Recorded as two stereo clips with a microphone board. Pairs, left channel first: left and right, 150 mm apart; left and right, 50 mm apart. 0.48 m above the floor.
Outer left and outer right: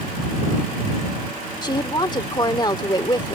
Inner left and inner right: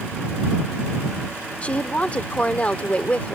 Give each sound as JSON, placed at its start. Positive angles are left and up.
{"t": 1.6, "sound": "a woman speaking", "side_deg": 30}